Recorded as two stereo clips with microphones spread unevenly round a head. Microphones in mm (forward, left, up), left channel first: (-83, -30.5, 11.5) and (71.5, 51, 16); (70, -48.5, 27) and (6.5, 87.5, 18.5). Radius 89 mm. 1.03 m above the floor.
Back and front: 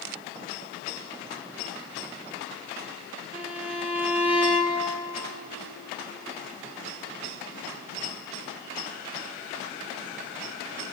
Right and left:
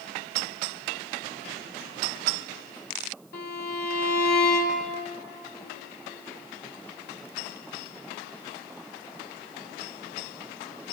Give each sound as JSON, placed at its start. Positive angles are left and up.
{"t": 3.3, "sound": "a violin", "azimuth_deg": -55, "distance_m": 3.0}